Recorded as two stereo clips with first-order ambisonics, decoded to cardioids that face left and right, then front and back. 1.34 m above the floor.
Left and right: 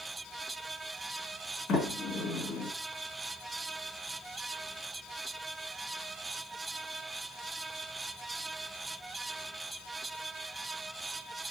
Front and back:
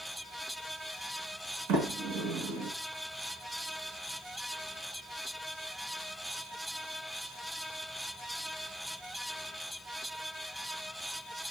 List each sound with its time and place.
1.7 s a sliding door: 155° left, 1.2 m